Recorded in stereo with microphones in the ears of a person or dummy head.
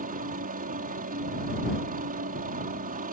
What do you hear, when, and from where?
0.0 s a helicopter: 45° right (ahead or behind)